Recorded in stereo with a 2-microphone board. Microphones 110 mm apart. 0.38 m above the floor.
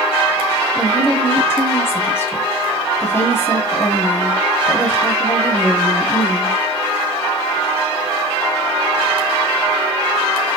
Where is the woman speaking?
20° left (ahead or behind), 2.5 m.